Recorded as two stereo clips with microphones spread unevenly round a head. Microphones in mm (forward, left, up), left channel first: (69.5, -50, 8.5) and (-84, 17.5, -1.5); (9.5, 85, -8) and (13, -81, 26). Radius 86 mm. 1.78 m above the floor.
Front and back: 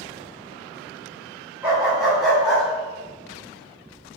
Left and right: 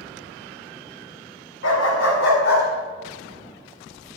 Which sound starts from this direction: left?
A dog barking, at 1.6 s.